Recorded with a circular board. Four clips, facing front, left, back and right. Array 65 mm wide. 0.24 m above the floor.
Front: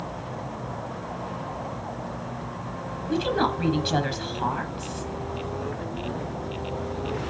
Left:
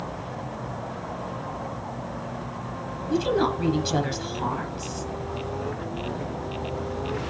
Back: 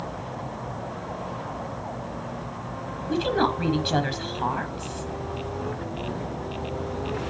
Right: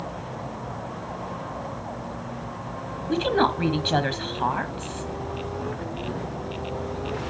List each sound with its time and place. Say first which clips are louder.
3.1 s a woman speaking: right 1 dB, back 1 dB; 95° right, 1.2 m